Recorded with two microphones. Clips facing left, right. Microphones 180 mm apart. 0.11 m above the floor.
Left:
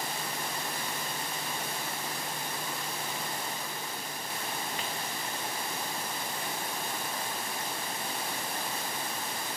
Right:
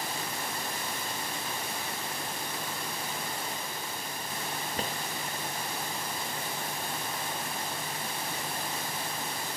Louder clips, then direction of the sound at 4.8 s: Right 3 dB; 45° right (ahead or behind).